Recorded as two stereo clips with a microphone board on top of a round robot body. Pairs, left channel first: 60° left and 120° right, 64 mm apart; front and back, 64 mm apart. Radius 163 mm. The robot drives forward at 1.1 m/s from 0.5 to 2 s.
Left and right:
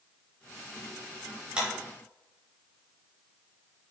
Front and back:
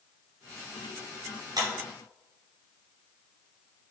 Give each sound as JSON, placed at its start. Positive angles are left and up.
{"t": 1.6, "sound": "a clap", "azimuth_deg": 165, "distance_m": 5.5}